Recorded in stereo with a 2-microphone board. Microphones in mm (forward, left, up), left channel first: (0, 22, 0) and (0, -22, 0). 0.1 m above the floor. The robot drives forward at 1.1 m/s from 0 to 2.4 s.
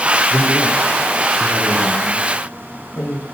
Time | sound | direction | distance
0.3 | a man speaking | 45° left (ahead or behind) | 6 m